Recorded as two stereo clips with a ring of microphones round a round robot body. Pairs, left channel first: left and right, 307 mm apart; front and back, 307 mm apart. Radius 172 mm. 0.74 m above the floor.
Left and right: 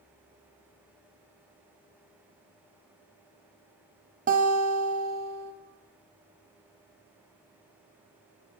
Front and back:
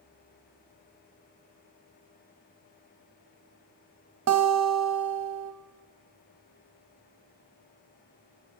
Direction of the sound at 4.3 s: 150° right.